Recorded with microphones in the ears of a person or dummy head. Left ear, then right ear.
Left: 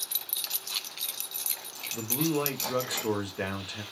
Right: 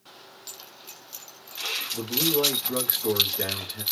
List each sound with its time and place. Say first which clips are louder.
1.9 s a man speaking: right 2 dB; 50° left (ahead or behind), 1.4 m